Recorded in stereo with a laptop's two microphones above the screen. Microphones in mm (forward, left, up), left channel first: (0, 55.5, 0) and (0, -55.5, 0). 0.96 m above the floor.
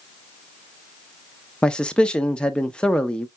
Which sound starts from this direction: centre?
A man speaking, at 1.6 s.